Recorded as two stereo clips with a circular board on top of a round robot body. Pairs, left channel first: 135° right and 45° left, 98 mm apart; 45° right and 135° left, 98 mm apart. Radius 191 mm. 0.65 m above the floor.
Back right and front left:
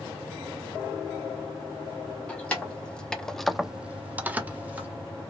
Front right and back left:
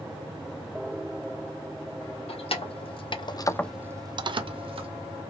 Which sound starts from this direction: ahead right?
Keys jangling, at 2.3 s.